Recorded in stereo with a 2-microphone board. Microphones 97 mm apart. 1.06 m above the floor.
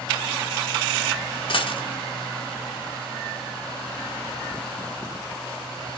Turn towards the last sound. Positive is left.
turn(degrees=65)  # may be behind; listen again after turning